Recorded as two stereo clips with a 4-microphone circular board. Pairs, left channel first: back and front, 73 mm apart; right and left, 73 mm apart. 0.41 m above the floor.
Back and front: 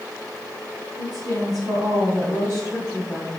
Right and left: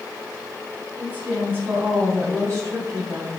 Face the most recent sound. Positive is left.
turn(degrees=55)